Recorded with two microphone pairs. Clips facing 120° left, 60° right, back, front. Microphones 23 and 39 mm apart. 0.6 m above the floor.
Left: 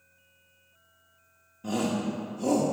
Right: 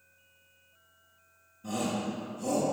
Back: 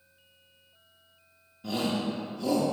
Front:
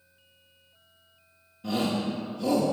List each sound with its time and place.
1.6 s a shout: 90° left, 0.9 m